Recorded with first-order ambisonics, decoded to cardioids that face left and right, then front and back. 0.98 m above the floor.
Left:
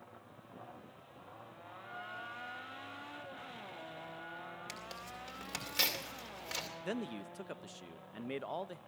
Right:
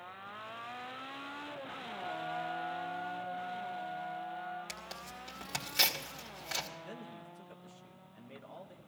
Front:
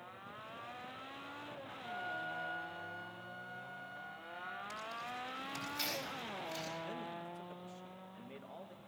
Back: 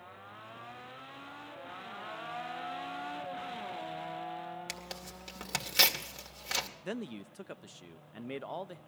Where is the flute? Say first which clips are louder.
Right 4 dB, front 3 dB; 25° left, 6.5 m.